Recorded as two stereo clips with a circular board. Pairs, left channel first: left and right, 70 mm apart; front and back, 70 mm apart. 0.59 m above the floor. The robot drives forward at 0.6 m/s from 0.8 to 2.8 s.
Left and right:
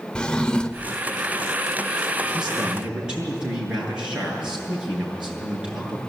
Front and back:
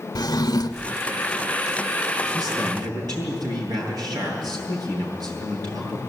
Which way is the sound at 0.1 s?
15° left.